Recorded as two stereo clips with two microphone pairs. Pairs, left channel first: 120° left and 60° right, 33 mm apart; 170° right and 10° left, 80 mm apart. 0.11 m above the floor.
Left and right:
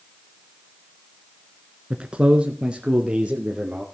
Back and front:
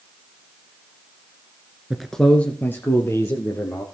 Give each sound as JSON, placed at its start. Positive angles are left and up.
{"t": 1.9, "sound": "a man speaking", "azimuth_deg": -70, "distance_m": 1.4}